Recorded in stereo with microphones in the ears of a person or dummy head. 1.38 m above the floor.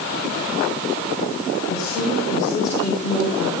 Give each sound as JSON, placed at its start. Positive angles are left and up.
{"t": 1.7, "sound": "a woman speaking", "side_deg": 20, "distance_m": 5.0}